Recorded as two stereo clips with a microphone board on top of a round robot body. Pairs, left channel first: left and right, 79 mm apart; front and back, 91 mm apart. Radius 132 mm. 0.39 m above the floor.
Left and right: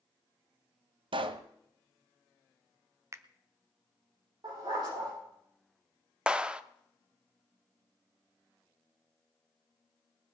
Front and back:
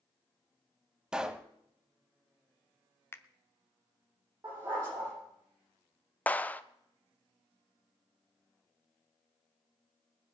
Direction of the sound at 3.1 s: 55° right.